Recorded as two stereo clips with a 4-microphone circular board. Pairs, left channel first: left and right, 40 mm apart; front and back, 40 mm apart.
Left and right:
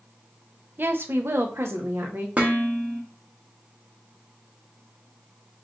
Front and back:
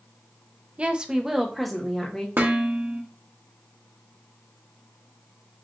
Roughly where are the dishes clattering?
Behind right.